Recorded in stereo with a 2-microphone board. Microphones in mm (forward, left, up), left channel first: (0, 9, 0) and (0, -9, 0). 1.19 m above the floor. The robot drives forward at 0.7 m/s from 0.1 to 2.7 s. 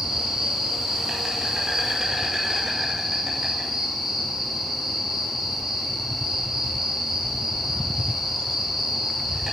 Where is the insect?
40° right (ahead or behind), 4.5 m; by 9.5 s 30° right (ahead or behind), 6 m.